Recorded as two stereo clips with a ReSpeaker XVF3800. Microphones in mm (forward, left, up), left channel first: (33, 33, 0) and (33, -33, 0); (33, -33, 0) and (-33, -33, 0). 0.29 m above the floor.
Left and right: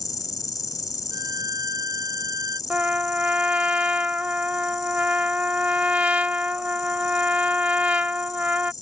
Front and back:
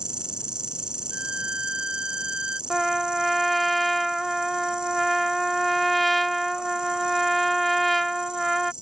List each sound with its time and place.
0.0 s an insect: 105° left
1.1 s a violin: 105° right
2.7 s a trumpet: 85° right